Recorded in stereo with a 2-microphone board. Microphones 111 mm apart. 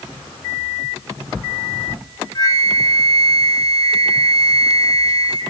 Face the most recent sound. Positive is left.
turn(degrees=35)  # may be behind; listen again after turning